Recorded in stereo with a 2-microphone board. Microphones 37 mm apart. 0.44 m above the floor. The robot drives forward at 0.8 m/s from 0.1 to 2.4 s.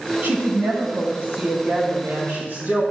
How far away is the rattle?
No rattle in this recording.